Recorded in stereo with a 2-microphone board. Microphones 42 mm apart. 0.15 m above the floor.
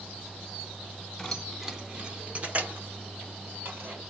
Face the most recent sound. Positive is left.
turn(degrees=-45)  # may be behind; listen again after turning